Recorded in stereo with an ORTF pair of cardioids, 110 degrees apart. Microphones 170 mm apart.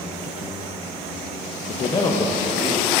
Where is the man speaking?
45° left, 0.5 m; by 3.0 s 5° right, 1.2 m.